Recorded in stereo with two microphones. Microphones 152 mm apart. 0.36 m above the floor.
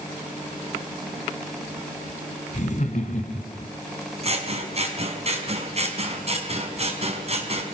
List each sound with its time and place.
2.5 s laughter: 55° left (ahead or behind), 3 m
4.2 s scissors: 45° right (ahead or behind), 4 m